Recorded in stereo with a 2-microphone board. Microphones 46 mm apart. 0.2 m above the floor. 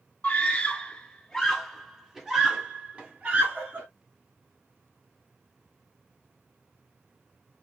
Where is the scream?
30° left (ahead or behind), 1.8 m; by 3.9 s 40° right (ahead or behind), 1.6 m.